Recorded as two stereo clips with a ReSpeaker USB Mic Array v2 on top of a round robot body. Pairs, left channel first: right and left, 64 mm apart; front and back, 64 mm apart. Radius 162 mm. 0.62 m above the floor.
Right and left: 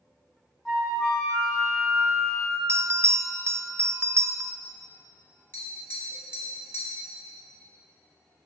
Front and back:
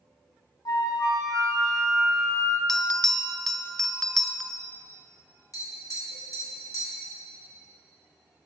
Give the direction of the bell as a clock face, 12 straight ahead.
9 o'clock.